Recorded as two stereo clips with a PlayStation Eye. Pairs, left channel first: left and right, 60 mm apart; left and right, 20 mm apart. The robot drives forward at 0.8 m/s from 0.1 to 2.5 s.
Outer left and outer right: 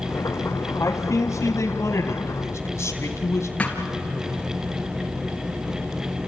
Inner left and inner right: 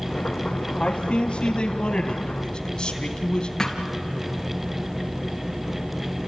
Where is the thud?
25° left (ahead or behind), 2.5 m.